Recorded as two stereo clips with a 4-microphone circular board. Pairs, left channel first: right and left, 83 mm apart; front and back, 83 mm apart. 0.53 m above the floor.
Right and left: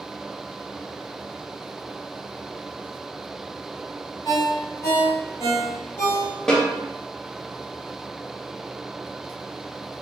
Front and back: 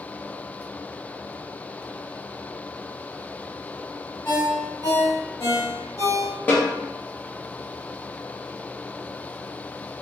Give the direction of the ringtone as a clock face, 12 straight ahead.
2 o'clock.